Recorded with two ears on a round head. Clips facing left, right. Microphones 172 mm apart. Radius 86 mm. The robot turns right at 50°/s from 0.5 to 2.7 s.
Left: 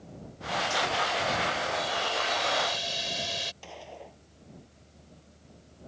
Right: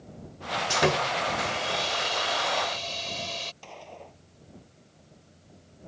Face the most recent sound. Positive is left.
turn(degrees=5)  # may be behind; listen again after turning